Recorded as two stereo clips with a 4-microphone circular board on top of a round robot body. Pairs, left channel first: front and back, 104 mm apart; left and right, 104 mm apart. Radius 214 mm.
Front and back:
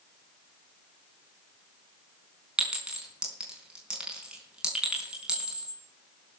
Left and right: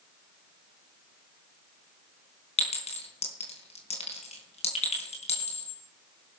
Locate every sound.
2.6 s a clink: 95° left, 4.5 m